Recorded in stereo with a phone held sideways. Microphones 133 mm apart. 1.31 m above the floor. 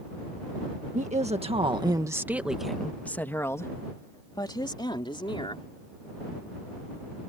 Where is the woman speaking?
60° right (ahead or behind); by 5.7 s 40° left (ahead or behind).